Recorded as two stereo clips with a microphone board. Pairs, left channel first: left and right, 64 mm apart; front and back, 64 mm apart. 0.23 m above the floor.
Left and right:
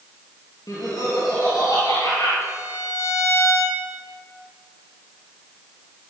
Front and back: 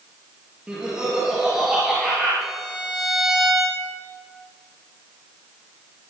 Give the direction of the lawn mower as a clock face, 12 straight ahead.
No lawn mower in this recording.